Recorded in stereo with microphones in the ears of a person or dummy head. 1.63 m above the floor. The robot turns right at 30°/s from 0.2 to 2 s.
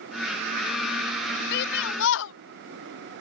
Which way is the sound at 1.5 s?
60° left (ahead or behind).